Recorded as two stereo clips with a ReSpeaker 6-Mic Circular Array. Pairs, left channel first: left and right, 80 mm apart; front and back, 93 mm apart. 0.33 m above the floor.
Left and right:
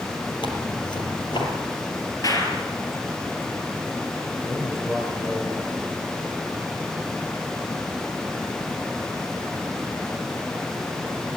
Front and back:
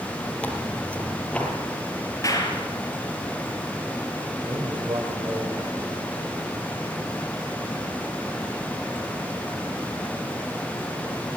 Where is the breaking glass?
I don't hear breaking glass.